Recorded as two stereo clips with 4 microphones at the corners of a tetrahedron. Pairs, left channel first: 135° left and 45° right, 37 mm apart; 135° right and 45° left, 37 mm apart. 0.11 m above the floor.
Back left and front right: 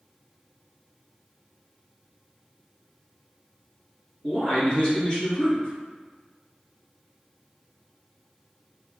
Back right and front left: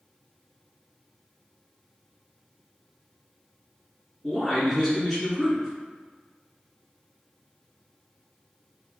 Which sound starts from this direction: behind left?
A man speaking, at 4.2 s.